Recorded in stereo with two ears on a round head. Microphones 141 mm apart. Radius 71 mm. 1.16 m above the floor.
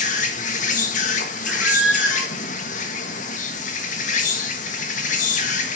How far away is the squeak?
About 2 m.